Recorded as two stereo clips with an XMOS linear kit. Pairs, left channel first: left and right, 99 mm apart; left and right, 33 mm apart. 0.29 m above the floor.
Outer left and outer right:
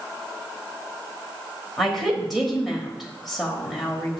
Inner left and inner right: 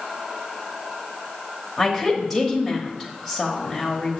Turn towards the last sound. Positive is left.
turn(degrees=0)  # may be behind; listen again after turning